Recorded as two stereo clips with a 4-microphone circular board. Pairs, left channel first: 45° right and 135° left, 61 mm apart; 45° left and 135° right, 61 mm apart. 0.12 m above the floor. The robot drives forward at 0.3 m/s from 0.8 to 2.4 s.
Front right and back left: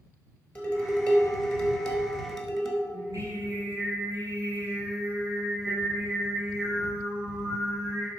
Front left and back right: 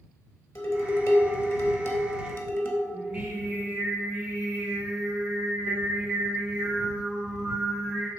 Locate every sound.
0.6 s dishes clattering: 25° left, 1.6 m; by 2.8 s 35° left, 1.2 m
2.9 s singing: 160° left, 2 m